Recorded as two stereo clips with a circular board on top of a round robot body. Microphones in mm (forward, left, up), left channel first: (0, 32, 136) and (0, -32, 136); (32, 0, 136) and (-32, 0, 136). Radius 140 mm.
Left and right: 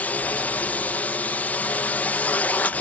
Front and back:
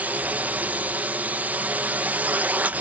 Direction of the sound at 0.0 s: 135° left.